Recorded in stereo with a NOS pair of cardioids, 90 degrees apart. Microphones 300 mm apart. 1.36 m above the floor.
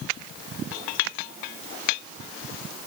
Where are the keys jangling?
I don't hear keys jangling.